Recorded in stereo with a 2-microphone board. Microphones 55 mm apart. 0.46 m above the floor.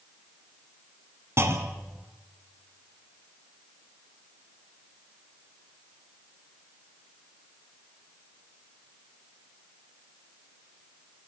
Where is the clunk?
60° right (ahead or behind), 2.5 m.